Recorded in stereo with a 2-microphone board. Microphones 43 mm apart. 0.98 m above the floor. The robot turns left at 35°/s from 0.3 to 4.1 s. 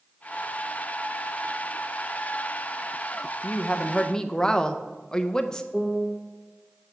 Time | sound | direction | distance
3.4 | a woman speaking | 35° left (ahead or behind) | 0.5 m
5.7 | a piano | centre (ahead or behind) | 0.7 m